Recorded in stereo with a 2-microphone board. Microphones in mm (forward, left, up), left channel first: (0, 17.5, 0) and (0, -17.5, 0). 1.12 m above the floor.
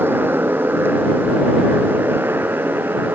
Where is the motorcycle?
85° right; by 3.1 s 80° right.